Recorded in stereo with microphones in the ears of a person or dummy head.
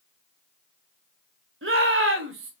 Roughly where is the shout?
Right.